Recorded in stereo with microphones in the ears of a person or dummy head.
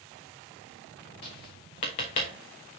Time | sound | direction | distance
1.2 | tapping | 30° left (ahead or behind) | 1.1 m